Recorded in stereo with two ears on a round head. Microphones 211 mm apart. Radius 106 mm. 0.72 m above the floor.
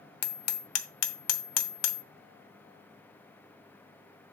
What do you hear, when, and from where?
0.2 s hammering: 70° left (ahead or behind), 0.8 m